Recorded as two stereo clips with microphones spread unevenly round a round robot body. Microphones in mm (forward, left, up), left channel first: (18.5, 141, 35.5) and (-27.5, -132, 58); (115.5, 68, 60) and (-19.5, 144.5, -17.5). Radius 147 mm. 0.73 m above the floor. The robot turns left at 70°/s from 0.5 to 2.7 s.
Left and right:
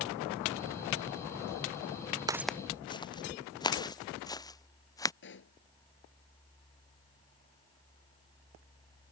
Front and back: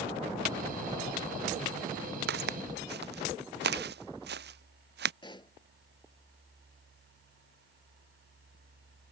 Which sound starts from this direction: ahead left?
A pop, at 5.2 s.